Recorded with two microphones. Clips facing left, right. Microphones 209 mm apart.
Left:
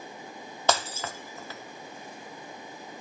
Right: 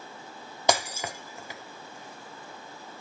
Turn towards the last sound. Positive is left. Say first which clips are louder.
# right 1 dB
turn(degrees=-15)  # may be behind; listen again after turning